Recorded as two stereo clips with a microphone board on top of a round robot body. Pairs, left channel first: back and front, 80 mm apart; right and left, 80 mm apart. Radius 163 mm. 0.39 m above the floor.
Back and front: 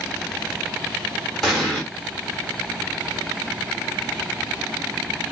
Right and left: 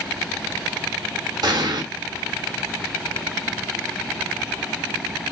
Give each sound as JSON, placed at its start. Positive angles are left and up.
{"t": 1.4, "sound": "an explosion", "azimuth_deg": 95, "distance_m": 1.3}